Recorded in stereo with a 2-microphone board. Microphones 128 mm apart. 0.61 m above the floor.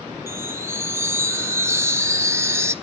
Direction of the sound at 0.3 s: 20° right (ahead or behind).